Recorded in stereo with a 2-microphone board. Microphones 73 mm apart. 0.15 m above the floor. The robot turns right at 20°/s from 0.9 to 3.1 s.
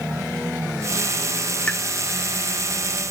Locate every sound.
1.7 s a pop: 15° left (ahead or behind), 0.7 m